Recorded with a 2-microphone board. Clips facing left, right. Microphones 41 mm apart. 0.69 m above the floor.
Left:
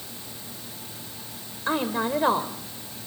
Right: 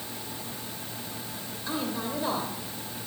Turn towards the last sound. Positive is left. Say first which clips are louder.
# left 7 dB
turn(degrees=50)  # may be behind; listen again after turning